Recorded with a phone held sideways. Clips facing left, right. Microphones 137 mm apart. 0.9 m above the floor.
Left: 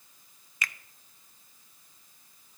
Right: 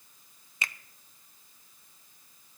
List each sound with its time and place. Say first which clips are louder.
0.6 s a finger snap: left 1 dB; 25° right (ahead or behind), 0.5 m